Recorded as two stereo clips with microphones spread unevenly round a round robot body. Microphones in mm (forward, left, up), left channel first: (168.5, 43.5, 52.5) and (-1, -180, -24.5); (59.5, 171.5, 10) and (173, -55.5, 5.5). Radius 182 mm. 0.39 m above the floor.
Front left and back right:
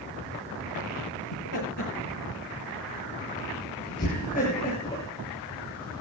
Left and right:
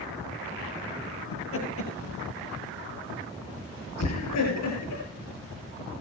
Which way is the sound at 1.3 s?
90° left.